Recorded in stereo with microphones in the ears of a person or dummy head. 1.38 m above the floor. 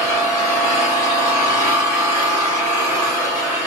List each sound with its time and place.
0.0 s an engine running: 40° right (ahead or behind), 1.4 m